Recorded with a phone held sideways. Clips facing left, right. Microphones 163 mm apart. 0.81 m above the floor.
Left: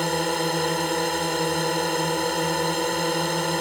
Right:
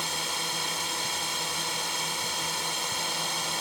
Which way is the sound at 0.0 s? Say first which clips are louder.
Left 13 dB; 60° left (ahead or behind).